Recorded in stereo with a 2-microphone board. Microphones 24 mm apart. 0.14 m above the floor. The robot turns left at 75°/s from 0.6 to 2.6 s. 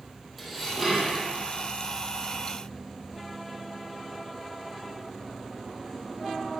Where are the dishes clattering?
5° left, 3 m; by 1.2 s 40° right, 3 m.